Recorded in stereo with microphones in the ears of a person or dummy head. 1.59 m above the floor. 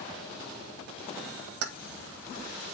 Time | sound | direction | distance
1.6 | keys jangling | 70° right (ahead or behind) | 1.1 m